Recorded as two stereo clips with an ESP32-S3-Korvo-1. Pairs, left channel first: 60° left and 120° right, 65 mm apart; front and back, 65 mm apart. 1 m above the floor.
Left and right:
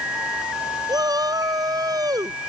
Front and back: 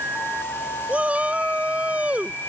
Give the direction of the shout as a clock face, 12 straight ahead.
4 o'clock.